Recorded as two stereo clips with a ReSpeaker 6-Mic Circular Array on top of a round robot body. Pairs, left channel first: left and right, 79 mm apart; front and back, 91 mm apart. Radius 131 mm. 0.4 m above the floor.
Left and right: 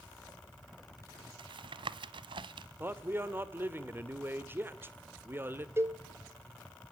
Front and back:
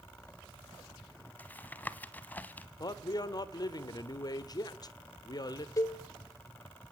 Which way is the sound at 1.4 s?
75° right.